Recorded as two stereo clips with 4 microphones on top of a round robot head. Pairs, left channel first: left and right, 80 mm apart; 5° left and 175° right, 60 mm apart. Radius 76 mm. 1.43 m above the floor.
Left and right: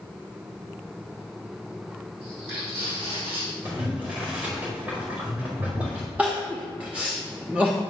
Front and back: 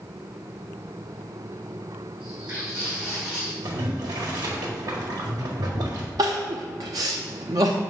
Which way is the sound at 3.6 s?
165° right.